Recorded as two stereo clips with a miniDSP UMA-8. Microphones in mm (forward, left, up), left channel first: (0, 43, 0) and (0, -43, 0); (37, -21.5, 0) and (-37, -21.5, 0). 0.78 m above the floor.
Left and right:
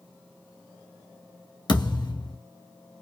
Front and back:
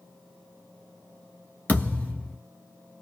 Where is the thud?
65° left, 1.5 m.